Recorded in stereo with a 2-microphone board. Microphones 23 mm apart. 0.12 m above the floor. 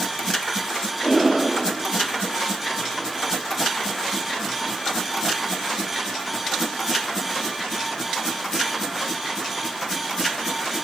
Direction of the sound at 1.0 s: 20° right (ahead or behind).